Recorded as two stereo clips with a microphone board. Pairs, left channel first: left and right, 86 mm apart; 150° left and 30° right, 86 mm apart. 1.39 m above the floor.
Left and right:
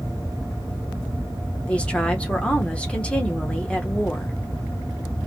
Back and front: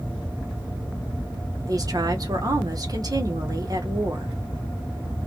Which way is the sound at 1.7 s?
15° left.